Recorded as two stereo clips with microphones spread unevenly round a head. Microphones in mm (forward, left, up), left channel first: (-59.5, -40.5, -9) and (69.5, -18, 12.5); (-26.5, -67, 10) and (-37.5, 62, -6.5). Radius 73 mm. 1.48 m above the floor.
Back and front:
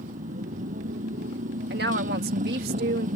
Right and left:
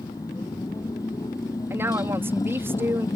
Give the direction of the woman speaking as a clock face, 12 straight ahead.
11 o'clock.